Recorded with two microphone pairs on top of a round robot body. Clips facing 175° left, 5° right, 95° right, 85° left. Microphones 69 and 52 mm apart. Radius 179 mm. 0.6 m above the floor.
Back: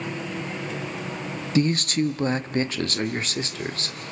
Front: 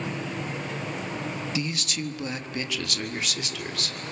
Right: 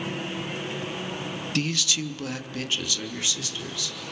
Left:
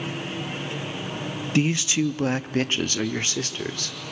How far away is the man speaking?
About 0.8 m.